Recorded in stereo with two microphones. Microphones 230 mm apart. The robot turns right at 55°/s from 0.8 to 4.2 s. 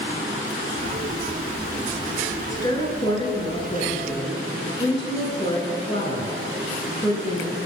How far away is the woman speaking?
About 1.3 m.